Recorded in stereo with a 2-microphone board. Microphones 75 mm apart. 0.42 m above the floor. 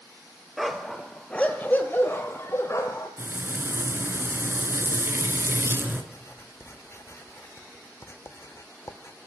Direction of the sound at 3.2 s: 30° right (ahead or behind).